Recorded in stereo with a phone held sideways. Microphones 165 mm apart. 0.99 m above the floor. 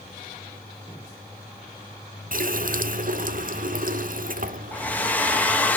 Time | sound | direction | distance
2.3 | a running tap | 55° right (ahead or behind) | 0.6 m
4.7 | a hair dryer | 10° left (ahead or behind) | 1.2 m